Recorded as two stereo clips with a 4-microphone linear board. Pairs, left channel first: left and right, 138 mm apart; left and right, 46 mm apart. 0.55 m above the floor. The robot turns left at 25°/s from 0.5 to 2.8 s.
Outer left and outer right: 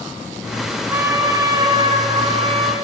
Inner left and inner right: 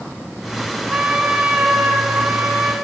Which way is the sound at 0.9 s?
25° right.